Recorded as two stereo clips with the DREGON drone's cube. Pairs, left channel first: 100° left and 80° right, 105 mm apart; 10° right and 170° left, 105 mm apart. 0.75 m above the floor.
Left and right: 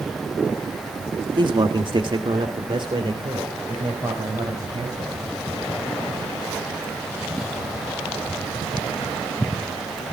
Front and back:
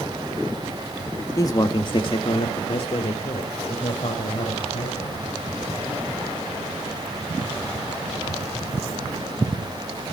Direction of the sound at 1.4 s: 65° right.